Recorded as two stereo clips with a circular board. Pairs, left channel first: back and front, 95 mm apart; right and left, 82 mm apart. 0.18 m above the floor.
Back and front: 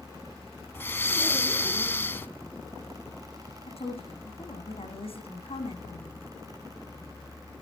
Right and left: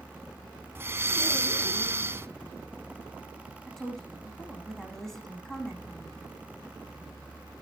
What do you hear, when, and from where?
0.8 s breathing: 130° left, 0.8 m
3.7 s a woman speaking: 175° right, 8 m